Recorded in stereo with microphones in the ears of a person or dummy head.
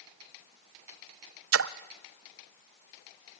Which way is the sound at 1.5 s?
85° right.